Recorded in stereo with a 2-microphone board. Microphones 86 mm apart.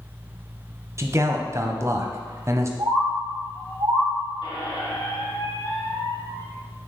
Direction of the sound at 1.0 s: 35° right (ahead or behind).